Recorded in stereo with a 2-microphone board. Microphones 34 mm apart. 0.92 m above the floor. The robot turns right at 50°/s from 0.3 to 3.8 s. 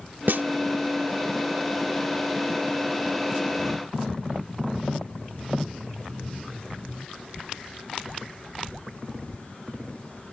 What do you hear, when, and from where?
0.3 s a snare drum: 80° right; by 0.4 s 90° right